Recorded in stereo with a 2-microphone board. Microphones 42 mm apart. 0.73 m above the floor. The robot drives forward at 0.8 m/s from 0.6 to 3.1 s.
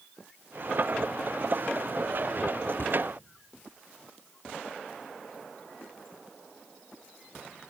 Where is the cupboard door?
60° left (ahead or behind), 1.6 m; by 3.0 s 65° left (ahead or behind), 1.5 m.